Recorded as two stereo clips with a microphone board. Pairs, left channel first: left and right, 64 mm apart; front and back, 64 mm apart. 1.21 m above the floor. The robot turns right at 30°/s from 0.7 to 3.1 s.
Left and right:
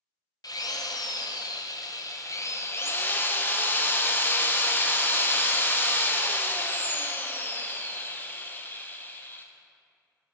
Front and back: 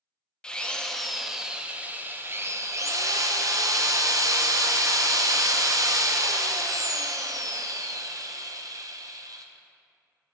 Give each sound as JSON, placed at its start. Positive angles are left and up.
{"t": 0.4, "sound": "a drill", "azimuth_deg": 75, "distance_m": 0.6}